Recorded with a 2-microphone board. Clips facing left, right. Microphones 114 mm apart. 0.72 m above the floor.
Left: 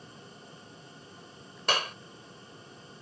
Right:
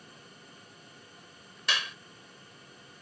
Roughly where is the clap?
Left.